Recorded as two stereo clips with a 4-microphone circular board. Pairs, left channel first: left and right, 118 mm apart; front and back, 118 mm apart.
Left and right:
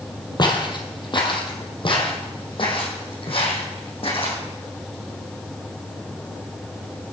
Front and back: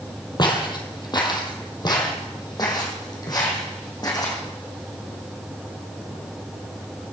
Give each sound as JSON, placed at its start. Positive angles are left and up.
{"t": 0.4, "sound": "footsteps", "azimuth_deg": 45, "distance_m": 3.0}